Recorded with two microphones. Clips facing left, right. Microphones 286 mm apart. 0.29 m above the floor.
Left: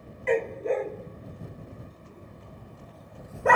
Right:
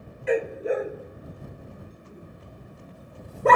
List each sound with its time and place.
0.3 s a dog barking: 10° right (ahead or behind); by 3.6 s 45° right (ahead or behind)